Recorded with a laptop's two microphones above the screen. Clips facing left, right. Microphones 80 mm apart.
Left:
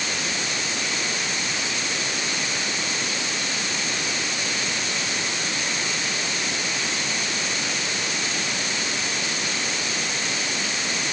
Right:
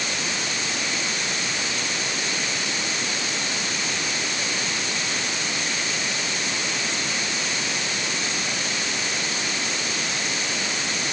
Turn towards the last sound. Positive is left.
No sound to turn to.